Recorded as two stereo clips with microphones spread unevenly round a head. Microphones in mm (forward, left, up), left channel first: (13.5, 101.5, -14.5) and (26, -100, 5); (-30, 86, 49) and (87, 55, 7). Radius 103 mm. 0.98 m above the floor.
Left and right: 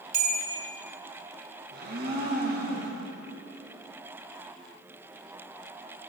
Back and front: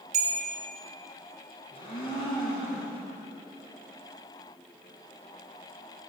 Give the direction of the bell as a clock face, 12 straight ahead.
1 o'clock.